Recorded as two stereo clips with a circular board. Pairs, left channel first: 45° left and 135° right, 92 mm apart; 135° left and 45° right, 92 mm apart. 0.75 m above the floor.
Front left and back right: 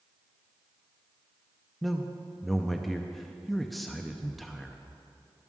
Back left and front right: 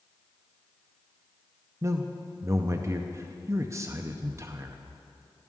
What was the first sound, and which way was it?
A man speaking, 45° right.